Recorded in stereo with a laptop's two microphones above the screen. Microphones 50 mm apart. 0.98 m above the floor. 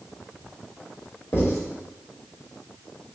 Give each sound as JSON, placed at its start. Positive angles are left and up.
{"t": 1.3, "sound": "writing", "side_deg": 50, "distance_m": 1.3}